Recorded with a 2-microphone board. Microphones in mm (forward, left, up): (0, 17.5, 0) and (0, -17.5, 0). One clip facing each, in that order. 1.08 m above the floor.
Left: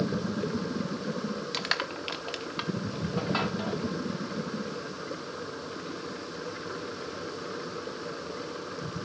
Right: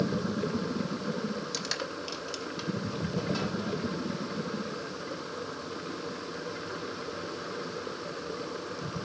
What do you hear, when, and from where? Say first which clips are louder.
1.5 s crushing: left 4 dB; 45° left (ahead or behind), 1.0 m